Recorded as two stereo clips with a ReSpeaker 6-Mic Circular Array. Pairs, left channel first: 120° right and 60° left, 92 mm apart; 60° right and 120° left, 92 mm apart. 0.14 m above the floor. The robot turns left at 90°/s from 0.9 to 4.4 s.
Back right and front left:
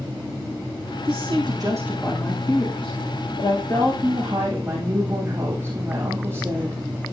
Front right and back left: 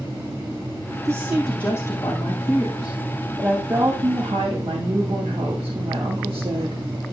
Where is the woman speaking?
65° left, 7 m; by 6.8 s 125° left, 7 m.